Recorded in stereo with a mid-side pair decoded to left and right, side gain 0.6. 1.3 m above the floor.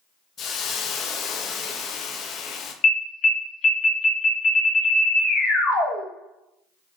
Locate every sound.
0.4 s a hiss: 50° left, 0.6 m
2.8 s an alarm: 45° left, 1.2 m